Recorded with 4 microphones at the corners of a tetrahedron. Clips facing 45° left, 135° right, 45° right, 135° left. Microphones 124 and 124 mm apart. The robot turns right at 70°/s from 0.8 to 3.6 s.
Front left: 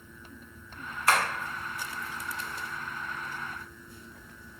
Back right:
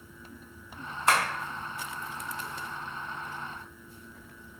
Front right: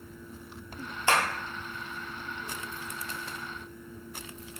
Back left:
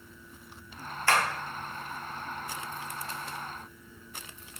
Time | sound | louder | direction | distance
1.1 | tapping | even, even | 95° right | 1.0 m